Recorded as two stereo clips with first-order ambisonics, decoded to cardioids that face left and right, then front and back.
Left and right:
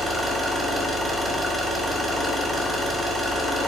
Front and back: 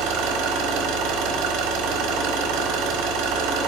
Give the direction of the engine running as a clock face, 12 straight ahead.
6 o'clock.